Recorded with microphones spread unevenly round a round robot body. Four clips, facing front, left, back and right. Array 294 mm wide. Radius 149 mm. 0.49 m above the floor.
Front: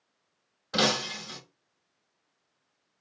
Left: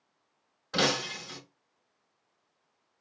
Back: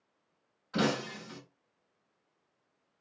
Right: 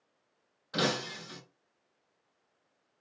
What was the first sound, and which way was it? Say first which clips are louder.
Breaking glass: left 2 dB, front 2 dB; 20° left.